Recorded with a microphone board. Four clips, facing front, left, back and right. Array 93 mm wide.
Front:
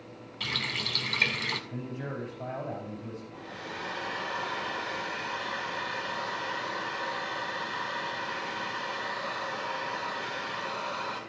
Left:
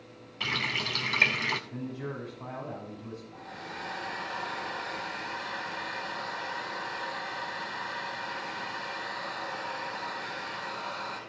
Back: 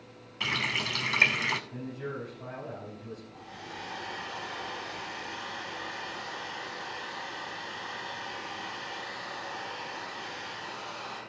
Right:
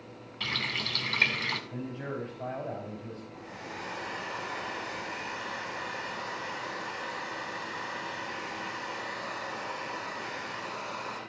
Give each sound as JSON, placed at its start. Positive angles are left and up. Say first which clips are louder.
{"t": 0.4, "sound": "a running tap", "louder": "left 2 dB, back 3 dB", "azimuth_deg": 150, "distance_m": 0.7}
{"t": 1.7, "sound": "a man speaking", "louder": "even, front 1 dB", "azimuth_deg": -45, "distance_m": 6.5}
{"t": 3.3, "sound": "a hair dryer", "louder": "even, front 3 dB", "azimuth_deg": -20, "distance_m": 4.5}